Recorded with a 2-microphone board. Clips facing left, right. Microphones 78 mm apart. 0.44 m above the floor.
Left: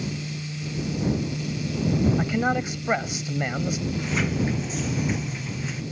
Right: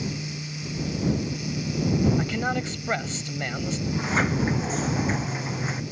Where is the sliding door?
40° right (ahead or behind).